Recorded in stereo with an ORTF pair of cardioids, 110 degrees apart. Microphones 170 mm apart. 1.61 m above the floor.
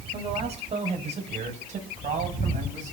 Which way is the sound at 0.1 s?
35° right.